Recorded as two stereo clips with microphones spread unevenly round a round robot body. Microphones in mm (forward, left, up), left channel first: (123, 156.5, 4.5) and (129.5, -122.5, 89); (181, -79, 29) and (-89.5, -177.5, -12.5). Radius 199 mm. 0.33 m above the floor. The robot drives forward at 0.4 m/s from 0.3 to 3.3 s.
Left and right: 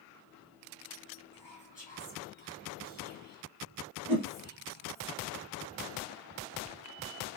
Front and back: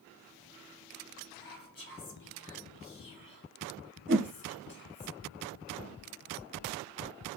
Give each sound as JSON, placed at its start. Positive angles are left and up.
{"t": 1.3, "sound": "whispering", "azimuth_deg": -15, "distance_m": 2.5}
{"t": 4.1, "sound": "a whoosh", "azimuth_deg": -170, "distance_m": 1.0}